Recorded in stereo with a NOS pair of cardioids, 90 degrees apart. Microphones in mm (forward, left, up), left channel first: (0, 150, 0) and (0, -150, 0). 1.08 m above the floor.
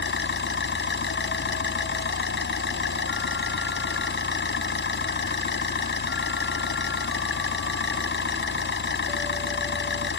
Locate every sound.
0.0 s an engine running: 40° left